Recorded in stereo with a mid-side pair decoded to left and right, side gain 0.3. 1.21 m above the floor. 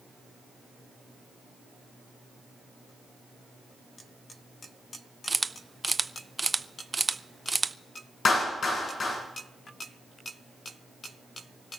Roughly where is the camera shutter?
Ahead right.